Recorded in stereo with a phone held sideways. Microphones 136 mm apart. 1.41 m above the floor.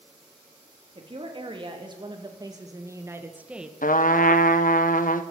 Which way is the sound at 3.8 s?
80° left.